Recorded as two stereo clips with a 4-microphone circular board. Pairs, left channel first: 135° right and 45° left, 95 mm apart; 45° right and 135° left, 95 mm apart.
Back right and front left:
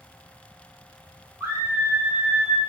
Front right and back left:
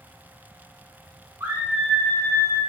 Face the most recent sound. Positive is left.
turn(degrees=-40)